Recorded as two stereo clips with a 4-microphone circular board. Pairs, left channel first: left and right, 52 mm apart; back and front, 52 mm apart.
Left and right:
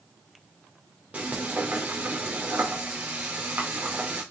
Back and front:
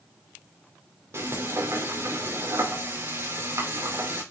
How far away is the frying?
About 4.5 m.